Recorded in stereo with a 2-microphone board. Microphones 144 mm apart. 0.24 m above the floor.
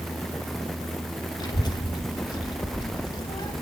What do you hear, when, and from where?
1.4 s a child speaking: 30° left (ahead or behind), 0.5 m